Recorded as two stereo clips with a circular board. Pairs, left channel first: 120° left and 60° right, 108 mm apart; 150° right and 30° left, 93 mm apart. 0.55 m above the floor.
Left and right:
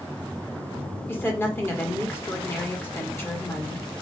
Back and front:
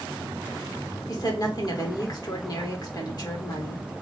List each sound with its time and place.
1.1 s a woman speaking: 175° right, 1.5 m